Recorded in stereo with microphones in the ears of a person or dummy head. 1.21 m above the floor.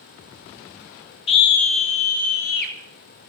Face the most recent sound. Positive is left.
turn(degrees=55)  # may be behind; listen again after turning